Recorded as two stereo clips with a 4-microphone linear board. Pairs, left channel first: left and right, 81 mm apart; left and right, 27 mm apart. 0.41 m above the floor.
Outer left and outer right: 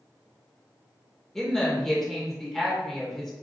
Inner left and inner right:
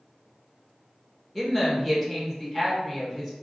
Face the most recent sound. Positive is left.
turn(degrees=5)  # may be behind; listen again after turning